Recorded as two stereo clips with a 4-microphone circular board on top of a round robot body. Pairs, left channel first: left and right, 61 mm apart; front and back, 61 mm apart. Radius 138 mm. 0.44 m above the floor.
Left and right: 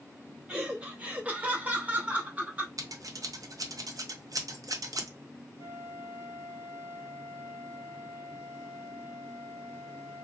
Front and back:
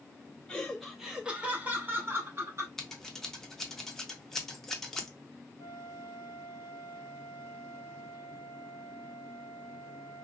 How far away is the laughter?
About 1.0 m.